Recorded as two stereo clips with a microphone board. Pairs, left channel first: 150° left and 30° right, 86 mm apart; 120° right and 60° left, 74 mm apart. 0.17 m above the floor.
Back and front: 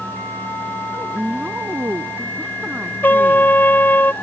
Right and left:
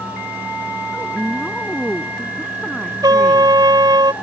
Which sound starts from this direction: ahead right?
A woman speaking, at 0.9 s.